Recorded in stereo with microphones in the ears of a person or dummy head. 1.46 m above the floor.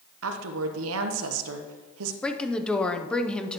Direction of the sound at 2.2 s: Centre (ahead or behind).